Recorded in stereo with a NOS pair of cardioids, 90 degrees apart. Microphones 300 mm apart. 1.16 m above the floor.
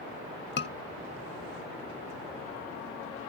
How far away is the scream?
About 0.9 m.